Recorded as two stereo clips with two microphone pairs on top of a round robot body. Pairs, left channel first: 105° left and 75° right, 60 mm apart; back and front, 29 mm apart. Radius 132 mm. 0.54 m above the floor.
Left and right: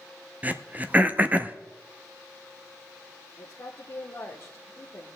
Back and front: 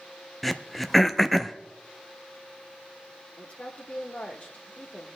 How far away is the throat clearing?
About 0.9 m.